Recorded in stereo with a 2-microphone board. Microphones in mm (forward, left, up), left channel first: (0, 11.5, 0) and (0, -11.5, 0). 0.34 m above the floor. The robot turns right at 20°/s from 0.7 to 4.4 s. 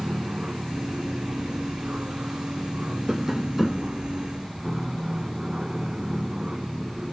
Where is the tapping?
20° right (ahead or behind); by 3.9 s 5° right (ahead or behind).